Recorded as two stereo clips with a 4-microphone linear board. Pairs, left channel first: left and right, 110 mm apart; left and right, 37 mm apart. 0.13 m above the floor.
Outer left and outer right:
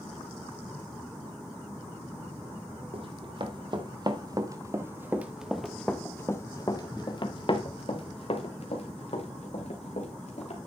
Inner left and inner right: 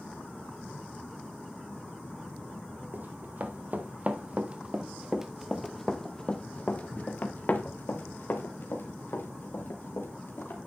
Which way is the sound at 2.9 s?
55° right (ahead or behind).